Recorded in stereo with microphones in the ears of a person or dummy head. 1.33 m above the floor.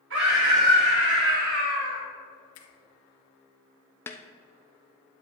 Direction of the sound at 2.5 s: 90° left.